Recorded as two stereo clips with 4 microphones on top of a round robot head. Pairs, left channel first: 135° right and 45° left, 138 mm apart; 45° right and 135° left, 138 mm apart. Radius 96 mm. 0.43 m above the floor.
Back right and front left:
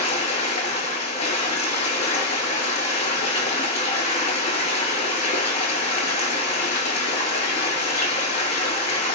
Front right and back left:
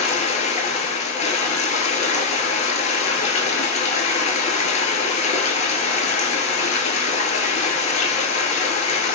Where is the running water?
85° right, 0.8 m.